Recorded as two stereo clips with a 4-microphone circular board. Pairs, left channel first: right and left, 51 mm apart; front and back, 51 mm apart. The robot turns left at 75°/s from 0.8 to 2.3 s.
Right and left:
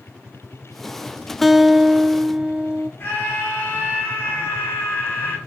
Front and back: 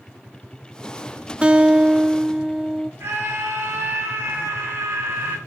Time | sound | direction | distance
1.4 | a guitar | 175° right | 0.7 m
3.0 | a scream | 145° right | 9 m